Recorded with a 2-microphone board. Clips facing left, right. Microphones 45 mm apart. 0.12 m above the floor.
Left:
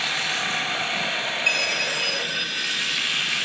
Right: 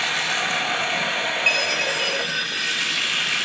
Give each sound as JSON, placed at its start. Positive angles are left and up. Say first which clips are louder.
{"t": 0.0, "sound": "running water", "louder": "right 2 dB", "side_deg": -55, "distance_m": 4.5}
{"t": 1.5, "sound": "a chime", "louder": "right 1 dB", "side_deg": -40, "distance_m": 5.0}